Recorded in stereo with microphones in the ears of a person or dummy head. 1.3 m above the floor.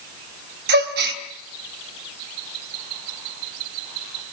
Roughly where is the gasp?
Right.